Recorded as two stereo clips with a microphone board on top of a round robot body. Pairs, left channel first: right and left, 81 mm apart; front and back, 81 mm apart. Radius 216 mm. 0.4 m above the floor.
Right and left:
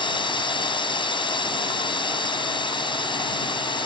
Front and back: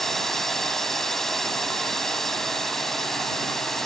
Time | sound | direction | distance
0.0 | a drone | 85° right | ?